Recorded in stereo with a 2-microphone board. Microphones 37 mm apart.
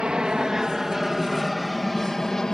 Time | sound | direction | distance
0.0 | an aircraft | 25° right (ahead or behind) | ?